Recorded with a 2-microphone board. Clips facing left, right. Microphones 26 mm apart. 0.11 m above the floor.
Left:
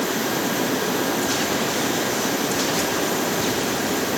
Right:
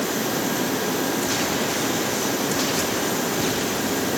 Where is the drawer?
I don't hear a drawer.